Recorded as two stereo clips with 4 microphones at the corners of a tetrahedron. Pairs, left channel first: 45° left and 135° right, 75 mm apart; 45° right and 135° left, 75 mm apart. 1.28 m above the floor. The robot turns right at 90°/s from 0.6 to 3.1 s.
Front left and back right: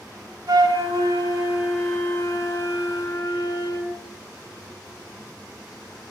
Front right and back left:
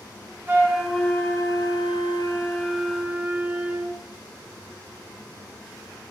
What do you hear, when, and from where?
0.5 s a flute: 160° right, 2.5 m; by 4.0 s 65° left, 2.5 m